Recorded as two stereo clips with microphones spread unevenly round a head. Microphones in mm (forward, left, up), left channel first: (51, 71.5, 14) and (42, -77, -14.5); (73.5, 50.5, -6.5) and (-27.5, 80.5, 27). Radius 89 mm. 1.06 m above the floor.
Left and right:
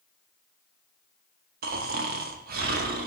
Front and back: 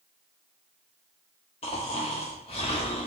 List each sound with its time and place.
1.6 s snoring: 75° right, 0.6 m